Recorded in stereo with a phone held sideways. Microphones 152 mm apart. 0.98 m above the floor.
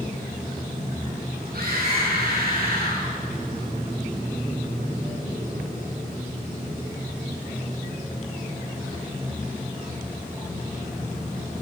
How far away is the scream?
About 10 m.